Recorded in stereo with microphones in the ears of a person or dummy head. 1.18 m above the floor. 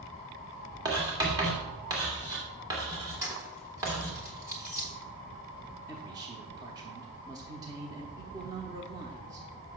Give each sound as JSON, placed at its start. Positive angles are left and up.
{"t": 0.8, "sound": "writing", "side_deg": -20, "distance_m": 2.0}
{"t": 3.2, "sound": "keys jangling", "side_deg": -15, "distance_m": 1.6}
{"t": 5.9, "sound": "a man speaking", "side_deg": -20, "distance_m": 0.8}